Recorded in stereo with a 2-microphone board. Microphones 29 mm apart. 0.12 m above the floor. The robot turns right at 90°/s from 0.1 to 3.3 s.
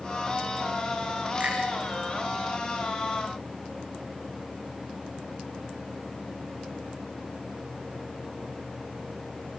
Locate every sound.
1.4 s a finger snap: 45° right (ahead or behind), 7 m; by 1.6 s 60° right (ahead or behind), 7 m